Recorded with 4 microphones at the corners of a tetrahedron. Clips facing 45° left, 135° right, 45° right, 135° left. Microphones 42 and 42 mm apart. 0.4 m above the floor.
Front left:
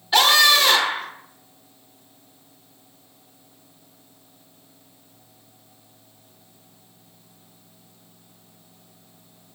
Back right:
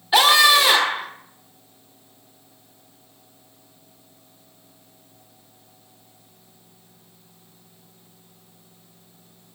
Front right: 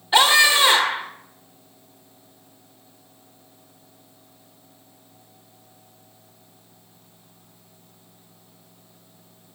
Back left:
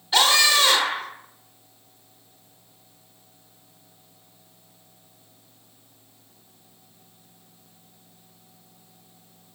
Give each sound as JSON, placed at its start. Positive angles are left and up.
{"t": 0.1, "sound": "a scream", "azimuth_deg": -65, "distance_m": 1.1}